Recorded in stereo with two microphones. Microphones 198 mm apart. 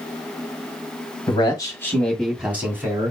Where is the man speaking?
30° left (ahead or behind), 1.6 m; by 3.1 s 20° right (ahead or behind), 2.5 m.